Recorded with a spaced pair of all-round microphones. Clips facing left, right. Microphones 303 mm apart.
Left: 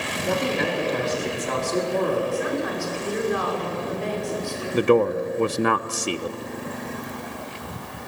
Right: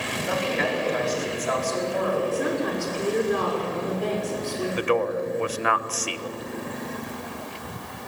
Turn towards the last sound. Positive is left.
turn(degrees=50)  # may be behind; listen again after turning